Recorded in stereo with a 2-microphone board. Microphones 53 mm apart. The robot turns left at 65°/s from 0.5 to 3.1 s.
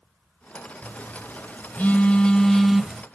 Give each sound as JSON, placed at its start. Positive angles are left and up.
{"t": 0.8, "sound": "a phone buzzing", "azimuth_deg": 120, "distance_m": 0.7}